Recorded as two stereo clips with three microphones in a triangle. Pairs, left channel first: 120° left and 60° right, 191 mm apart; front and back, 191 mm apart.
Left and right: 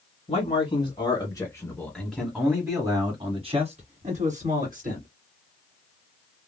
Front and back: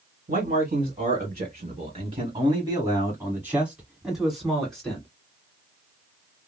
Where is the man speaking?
160° left, 1.6 m; by 5.1 s 85° right, 2 m.